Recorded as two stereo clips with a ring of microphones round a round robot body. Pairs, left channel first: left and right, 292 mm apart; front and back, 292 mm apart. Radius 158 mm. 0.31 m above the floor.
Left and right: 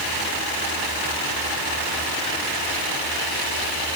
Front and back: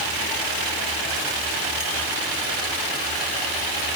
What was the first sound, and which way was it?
Only background noise.